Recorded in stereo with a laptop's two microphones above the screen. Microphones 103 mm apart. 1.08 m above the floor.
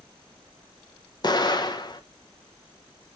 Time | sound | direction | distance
1.2 | an explosion | 40° left (ahead or behind) | 0.6 m